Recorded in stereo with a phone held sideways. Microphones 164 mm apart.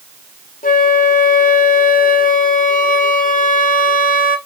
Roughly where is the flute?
Left.